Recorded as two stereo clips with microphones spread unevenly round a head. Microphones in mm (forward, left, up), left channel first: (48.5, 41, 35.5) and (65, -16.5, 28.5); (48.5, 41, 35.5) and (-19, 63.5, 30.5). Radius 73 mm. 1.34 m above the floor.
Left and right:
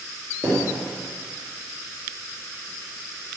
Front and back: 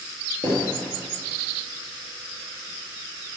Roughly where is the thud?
Behind.